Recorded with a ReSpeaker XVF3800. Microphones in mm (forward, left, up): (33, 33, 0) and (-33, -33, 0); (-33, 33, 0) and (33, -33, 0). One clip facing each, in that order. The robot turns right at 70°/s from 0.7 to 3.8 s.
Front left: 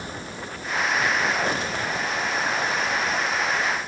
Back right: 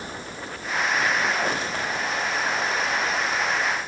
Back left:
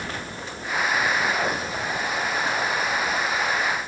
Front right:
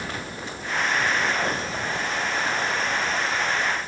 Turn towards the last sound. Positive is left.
No sound to turn to.